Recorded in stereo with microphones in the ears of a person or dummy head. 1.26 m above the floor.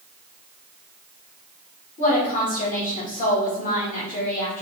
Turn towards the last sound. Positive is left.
turn(degrees=35)  # may be behind; listen again after turning